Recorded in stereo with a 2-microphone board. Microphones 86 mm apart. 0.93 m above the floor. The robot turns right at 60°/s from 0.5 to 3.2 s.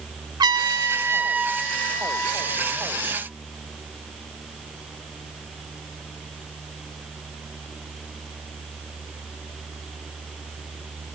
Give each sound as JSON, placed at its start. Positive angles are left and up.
{"t": 0.4, "sound": "a trumpet", "azimuth_deg": -70, "distance_m": 0.7}